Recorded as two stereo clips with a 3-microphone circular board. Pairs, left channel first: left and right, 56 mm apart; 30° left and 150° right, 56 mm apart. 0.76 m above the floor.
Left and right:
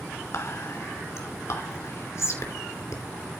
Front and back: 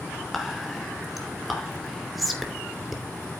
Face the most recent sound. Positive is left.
turn(degrees=120)